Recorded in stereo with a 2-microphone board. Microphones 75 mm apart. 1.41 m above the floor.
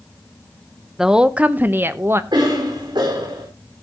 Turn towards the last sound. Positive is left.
turn(degrees=-80)